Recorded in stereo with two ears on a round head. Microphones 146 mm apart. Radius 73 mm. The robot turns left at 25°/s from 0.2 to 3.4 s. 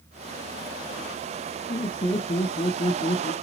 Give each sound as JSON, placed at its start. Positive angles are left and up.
{"t": 1.7, "sound": "laughter", "azimuth_deg": 155, "distance_m": 1.0}